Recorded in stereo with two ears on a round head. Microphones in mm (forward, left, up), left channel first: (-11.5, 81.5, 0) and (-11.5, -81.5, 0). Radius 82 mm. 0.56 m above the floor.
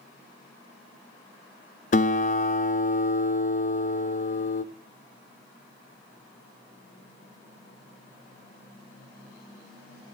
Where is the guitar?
40° left (ahead or behind), 0.6 m.